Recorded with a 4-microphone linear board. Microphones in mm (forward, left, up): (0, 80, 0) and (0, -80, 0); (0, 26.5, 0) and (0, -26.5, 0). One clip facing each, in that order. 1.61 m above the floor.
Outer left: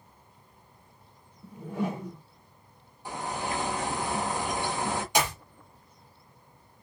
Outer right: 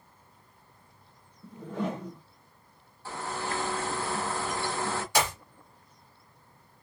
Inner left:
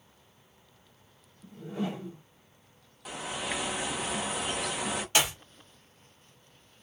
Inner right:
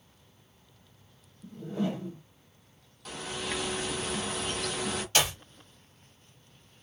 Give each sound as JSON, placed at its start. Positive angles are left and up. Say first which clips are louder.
{"t": 1.4, "sound": "a whoosh", "louder": "outer left 1 dB, inner right 2 dB", "side_deg": 15, "distance_m": 1.5}
{"t": 3.0, "sound": "a bird", "louder": "outer left 1 dB, inner left 1 dB", "side_deg": 15, "distance_m": 0.6}
{"t": 5.2, "sound": "a clap", "louder": "even, even", "side_deg": 15, "distance_m": 1.3}